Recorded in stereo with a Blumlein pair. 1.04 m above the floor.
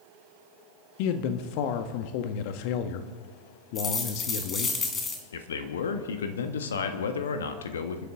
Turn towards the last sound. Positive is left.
turn(degrees=65)